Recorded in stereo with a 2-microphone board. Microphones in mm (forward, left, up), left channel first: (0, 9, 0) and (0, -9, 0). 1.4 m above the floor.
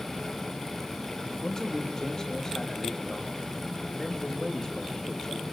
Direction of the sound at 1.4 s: 30° left (ahead or behind).